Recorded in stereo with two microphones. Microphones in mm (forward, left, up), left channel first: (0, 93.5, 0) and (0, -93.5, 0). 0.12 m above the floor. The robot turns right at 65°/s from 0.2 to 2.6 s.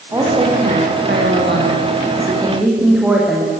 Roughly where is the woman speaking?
Behind.